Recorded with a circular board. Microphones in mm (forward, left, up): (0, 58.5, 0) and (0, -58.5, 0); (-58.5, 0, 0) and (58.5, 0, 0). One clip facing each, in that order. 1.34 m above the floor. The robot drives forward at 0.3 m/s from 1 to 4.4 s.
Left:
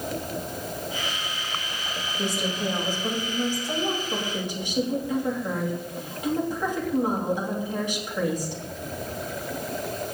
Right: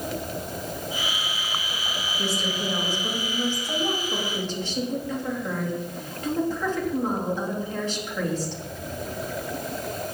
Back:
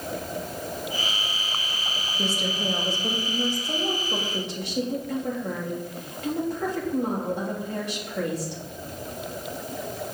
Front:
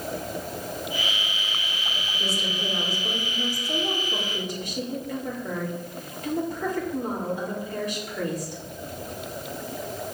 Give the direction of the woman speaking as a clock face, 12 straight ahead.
7 o'clock.